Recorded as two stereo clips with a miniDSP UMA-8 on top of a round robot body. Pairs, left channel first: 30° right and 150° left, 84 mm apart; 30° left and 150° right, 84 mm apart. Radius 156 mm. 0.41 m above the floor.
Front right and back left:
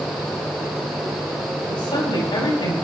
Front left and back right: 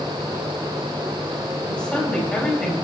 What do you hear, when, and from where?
1.7 s a woman speaking: 50° right, 5 m